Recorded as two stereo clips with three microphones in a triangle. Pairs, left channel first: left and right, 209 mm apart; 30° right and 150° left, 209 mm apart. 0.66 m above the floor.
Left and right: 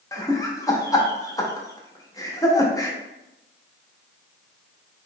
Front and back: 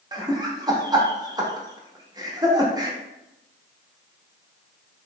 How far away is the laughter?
About 0.7 m.